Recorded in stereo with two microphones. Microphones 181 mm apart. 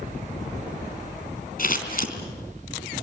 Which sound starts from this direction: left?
Scissors, at 1.6 s.